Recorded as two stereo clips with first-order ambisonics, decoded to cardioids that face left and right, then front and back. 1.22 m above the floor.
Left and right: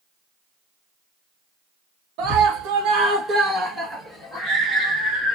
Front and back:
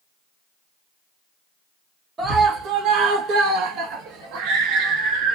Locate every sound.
2.2 s a scream: 115° right, 0.9 m; by 5.4 s straight behind, 1.7 m